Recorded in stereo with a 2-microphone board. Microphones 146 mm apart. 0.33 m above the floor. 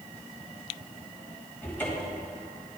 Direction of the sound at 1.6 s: 15° left (ahead or behind).